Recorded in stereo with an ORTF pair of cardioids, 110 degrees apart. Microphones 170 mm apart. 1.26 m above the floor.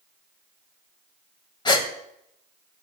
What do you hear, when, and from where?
1.6 s a gasp: 25° left, 1.9 m